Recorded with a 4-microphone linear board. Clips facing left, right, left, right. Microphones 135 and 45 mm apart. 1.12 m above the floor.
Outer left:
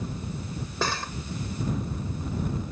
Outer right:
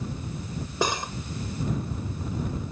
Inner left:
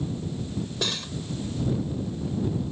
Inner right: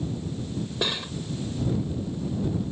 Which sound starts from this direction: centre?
Cutlery clinking, at 0.8 s.